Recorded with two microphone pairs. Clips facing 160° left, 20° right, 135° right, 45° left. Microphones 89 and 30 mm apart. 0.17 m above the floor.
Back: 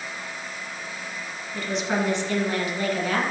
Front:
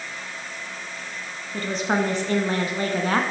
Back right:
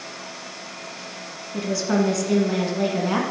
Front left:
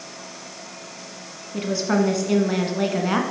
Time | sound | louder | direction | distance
1.5 | a woman speaking | front 2 dB, front left 1 dB | 10° right | 1.5 m